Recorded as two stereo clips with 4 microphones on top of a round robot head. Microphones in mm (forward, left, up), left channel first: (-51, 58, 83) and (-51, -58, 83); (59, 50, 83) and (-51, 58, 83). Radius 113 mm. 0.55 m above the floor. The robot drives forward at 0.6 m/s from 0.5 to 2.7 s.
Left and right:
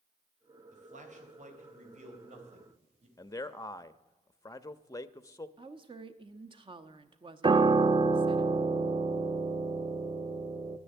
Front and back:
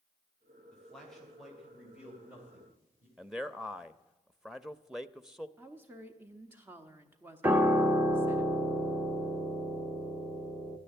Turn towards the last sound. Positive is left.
turn(degrees=-110)